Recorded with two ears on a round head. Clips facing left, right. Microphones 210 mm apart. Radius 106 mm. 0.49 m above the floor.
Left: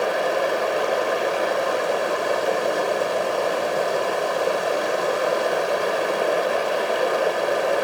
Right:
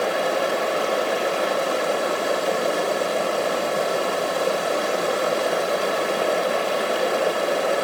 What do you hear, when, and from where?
0.0 s running water: centre (ahead or behind), 0.9 m